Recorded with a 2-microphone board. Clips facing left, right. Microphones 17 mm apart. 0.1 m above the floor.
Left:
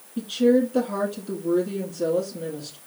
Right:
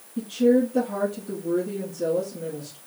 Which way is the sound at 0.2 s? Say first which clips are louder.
Even; 45° left (ahead or behind).